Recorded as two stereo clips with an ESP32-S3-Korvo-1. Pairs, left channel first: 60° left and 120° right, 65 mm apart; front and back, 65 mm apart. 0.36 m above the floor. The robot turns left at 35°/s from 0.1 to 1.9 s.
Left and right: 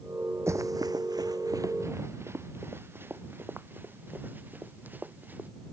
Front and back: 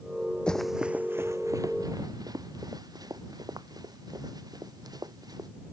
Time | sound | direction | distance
0.5 | running footsteps | 75° right | ?